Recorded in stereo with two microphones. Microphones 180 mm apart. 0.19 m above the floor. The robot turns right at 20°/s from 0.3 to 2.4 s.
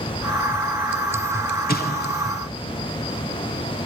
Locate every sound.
1.7 s an explosion: 60° left (ahead or behind), 3 m; by 2.3 s 65° left (ahead or behind), 3 m